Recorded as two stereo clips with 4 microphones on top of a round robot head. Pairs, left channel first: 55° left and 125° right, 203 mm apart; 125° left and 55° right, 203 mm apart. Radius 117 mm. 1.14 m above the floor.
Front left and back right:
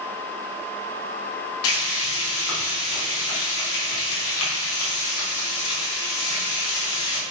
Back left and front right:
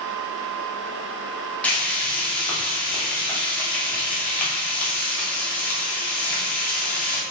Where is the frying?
40° left, 2.5 m.